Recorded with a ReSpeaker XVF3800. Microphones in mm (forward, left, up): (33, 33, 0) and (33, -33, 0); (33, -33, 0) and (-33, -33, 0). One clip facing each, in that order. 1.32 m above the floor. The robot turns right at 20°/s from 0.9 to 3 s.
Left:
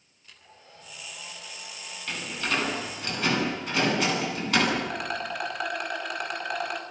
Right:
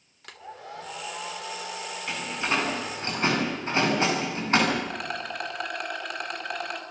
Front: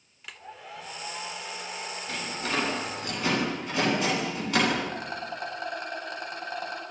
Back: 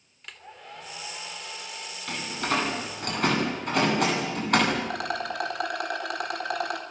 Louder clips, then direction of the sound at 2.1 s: Right 1 dB, back 4 dB; 165° right.